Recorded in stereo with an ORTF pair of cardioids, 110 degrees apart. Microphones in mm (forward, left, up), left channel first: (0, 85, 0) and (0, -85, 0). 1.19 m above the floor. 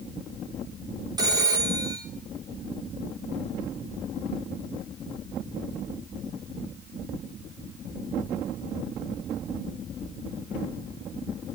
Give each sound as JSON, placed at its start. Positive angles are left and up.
{"t": 1.2, "sound": "a phone ringing", "azimuth_deg": -25, "distance_m": 7.0}